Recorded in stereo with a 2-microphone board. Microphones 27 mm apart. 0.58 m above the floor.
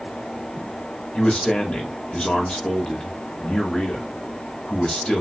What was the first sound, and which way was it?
A man speaking, 35° left (ahead or behind).